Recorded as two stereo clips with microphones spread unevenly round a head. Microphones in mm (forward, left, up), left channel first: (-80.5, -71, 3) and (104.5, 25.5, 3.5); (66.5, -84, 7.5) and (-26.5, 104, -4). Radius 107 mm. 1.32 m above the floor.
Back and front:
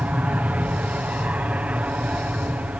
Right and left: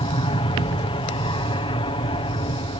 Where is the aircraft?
50° right.